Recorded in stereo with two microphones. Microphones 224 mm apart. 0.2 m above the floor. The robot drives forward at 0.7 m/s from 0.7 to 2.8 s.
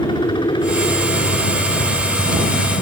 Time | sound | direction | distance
0.0 | a helicopter | 20° left (ahead or behind) | ?